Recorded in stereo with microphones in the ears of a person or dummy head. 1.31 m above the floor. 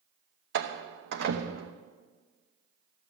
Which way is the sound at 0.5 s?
55° right (ahead or behind).